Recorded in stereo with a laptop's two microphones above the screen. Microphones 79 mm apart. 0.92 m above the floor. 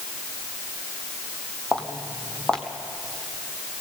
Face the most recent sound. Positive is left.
turn(degrees=10)  # may be behind; listen again after turning